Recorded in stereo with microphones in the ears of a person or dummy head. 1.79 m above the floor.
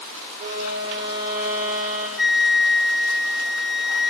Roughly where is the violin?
Right.